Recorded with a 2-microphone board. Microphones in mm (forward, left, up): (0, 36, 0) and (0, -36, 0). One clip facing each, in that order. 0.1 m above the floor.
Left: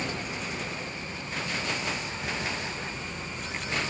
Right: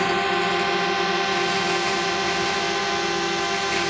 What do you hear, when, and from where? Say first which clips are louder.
0.0 s a drone: right 13 dB; 80° right